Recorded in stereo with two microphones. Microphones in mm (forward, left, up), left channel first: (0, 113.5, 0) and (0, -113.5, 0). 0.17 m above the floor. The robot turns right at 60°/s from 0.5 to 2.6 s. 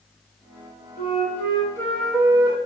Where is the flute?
115° left, 0.7 m; by 2.6 s 150° right, 0.7 m.